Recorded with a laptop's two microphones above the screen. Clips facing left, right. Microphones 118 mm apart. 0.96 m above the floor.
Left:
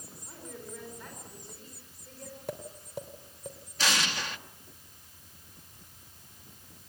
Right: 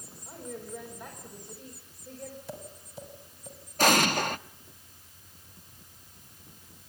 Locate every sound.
0.2 s a woman speaking: 10° right (ahead or behind), 4 m
2.5 s tapping: 60° left (ahead or behind), 3 m
3.8 s an explosion: 55° right (ahead or behind), 0.5 m